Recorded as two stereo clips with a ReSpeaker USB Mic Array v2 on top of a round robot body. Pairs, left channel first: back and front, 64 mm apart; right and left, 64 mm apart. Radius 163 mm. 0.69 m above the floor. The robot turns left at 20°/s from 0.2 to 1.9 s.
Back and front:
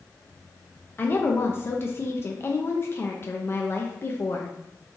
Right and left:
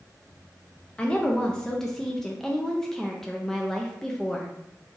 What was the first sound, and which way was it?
A woman speaking, 150° right.